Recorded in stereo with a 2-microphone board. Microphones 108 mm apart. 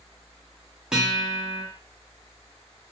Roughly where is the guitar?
Centre.